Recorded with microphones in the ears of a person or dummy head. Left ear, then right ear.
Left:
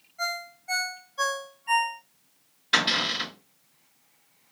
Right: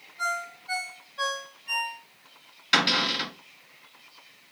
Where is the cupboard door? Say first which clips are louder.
Right 1 dB; 30° right (ahead or behind), 2 m.